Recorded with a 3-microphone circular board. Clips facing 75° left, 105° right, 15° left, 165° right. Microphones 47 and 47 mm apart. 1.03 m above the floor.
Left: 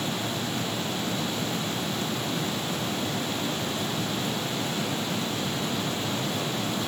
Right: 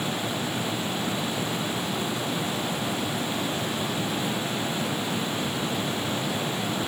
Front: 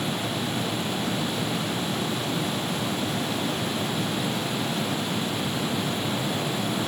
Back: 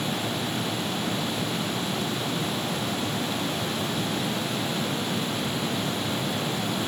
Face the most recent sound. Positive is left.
No sound to turn to.